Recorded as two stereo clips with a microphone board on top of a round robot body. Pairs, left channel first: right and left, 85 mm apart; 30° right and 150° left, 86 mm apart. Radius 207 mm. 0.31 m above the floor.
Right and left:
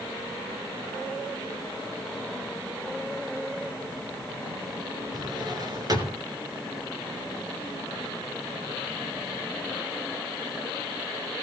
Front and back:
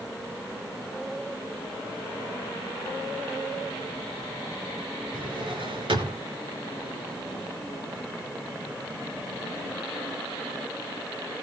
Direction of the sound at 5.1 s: 130° left.